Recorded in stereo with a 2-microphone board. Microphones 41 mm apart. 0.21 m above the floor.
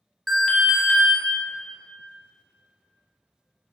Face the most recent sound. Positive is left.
turn(degrees=10)  # may be behind; listen again after turning